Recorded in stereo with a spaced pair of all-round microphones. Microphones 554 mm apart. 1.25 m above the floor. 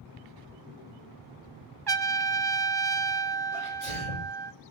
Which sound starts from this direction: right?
A trumpet, at 1.9 s.